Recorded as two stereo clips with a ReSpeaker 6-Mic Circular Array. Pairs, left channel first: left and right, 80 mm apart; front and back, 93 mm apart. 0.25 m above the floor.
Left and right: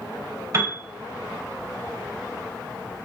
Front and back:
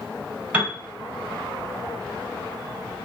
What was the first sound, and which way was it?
A piano, 110° right.